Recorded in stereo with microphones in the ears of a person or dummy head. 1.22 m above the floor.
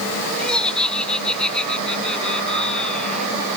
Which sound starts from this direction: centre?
Laughter, at 0.4 s.